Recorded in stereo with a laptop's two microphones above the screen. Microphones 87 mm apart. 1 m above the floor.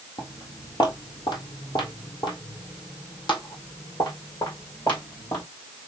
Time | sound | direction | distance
0.2 | footsteps | 50° left (ahead or behind) | 1.4 m